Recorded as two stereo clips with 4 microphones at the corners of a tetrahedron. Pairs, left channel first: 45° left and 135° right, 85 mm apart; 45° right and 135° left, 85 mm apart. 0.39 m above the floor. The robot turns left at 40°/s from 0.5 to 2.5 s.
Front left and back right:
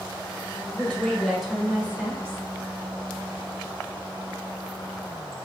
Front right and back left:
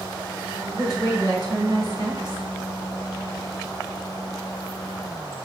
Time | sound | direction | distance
0.7 | a woman speaking | 20° right | 1.4 m